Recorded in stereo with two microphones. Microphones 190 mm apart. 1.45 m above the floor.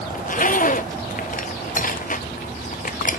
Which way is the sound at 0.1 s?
45° left (ahead or behind).